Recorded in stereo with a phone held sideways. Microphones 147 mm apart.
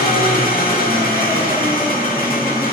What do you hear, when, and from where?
0.0 s an engine running: 70° left (ahead or behind), 1.8 m